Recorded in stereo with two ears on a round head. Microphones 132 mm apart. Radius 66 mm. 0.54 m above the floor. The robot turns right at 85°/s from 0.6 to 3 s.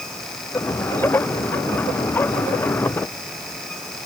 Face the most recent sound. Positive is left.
No sound to turn to.